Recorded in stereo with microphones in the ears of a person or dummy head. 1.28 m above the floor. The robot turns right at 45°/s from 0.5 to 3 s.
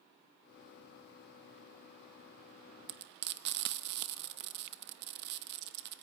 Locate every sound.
2.9 s frying: 60° right (ahead or behind), 0.9 m; by 6.0 s 55° right (ahead or behind), 0.9 m